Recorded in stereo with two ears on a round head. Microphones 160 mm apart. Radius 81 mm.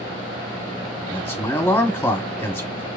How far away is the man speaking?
About 0.9 m.